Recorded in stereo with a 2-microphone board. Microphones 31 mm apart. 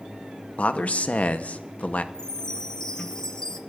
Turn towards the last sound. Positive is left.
turn(degrees=20)  # may be behind; listen again after turning